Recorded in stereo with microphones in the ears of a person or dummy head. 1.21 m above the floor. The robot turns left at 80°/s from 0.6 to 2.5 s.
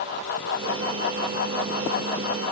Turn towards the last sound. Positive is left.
No sound to turn to.